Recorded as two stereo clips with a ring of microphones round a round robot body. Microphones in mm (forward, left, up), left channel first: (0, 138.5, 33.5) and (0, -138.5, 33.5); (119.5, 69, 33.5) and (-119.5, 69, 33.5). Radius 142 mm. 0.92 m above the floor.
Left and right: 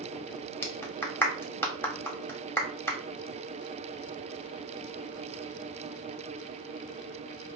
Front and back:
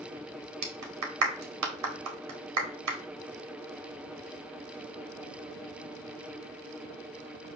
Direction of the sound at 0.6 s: 175° left.